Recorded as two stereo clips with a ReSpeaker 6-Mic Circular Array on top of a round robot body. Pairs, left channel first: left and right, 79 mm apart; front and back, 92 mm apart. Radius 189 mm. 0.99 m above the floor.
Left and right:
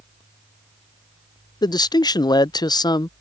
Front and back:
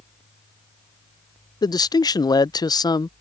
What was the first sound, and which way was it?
A man speaking, 50° left.